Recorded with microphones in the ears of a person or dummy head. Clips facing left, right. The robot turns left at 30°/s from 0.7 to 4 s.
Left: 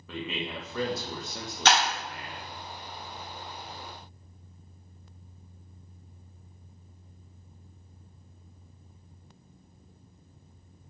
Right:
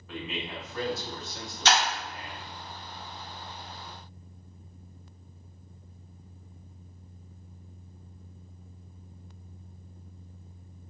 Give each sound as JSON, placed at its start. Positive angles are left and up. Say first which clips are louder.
{"t": 0.1, "sound": "a man speaking", "louder": "left 2 dB", "azimuth_deg": 100, "distance_m": 0.9}
{"t": 1.6, "sound": "breaking glass", "louder": "left 1 dB", "side_deg": 50, "distance_m": 1.3}